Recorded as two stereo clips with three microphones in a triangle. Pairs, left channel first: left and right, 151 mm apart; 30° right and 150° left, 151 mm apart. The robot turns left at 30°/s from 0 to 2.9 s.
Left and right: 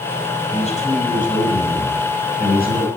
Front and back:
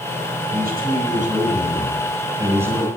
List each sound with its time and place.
0.5 s a man speaking: 140° left, 7 m; by 2.9 s 70° left, 7 m